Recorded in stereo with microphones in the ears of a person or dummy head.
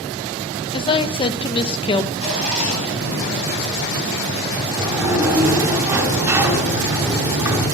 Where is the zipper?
50° left (ahead or behind), 8 m.